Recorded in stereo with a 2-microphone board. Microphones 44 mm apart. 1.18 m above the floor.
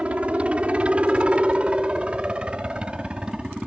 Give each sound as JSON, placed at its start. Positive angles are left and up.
{"t": 0.0, "sound": "a helicopter", "side_deg": -30}